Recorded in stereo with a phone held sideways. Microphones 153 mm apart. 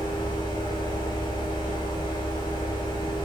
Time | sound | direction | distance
0.0 | a fan | 30° left (ahead or behind) | 2.5 m